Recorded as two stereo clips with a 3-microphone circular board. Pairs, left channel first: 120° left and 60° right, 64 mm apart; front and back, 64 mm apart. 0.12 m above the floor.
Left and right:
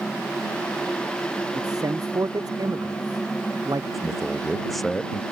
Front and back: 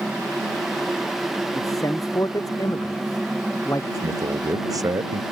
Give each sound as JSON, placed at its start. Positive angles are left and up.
{"t": 1.6, "sound": "a man speaking", "azimuth_deg": -35}
{"t": 3.9, "sound": "a man speaking", "azimuth_deg": -150}